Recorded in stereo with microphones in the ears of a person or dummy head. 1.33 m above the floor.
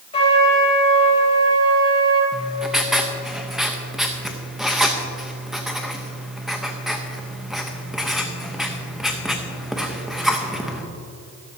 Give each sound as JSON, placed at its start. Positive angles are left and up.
{"t": 0.1, "sound": "a trumpet", "side_deg": 35, "distance_m": 1.7}
{"t": 2.3, "sound": "writing", "side_deg": 0, "distance_m": 0.9}